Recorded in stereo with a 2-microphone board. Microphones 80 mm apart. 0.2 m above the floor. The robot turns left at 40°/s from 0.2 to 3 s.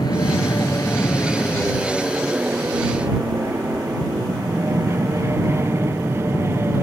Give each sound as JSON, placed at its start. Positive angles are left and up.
{"t": 0.0, "sound": "an aircraft", "side_deg": 60}